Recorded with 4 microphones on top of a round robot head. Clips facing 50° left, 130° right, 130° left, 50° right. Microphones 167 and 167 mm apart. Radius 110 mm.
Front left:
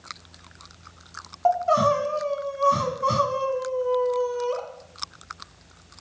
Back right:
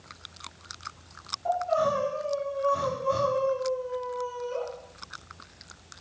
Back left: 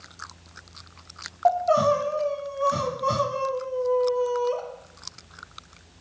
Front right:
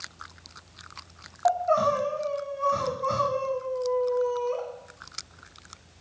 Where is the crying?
70° left, 1.3 m.